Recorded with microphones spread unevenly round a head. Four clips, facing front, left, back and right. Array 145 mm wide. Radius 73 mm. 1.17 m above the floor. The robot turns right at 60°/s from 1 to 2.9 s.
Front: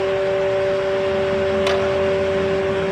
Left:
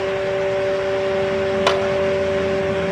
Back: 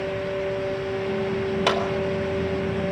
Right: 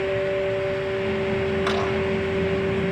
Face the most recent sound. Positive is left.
turn(degrees=-165)